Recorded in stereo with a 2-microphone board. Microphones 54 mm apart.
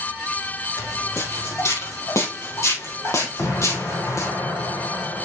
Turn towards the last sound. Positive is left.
turn(degrees=70)  # may be behind; listen again after turning